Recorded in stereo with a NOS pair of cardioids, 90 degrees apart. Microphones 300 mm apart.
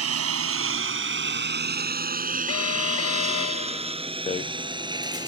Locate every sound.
0.0 s a lawn mower: 55° right; by 5.3 s 15° right
2.5 s an alarm: 55° left
4.3 s a rattle: 25° left